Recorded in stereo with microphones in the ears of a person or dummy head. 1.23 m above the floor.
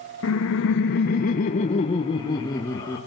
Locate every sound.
0.2 s laughter: 70° left (ahead or behind), 0.9 m; by 3.0 s 10° left (ahead or behind), 1.5 m